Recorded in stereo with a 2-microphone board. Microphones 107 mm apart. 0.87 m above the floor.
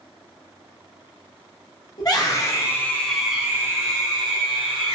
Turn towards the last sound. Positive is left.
turn(degrees=-50)  # may be behind; listen again after turning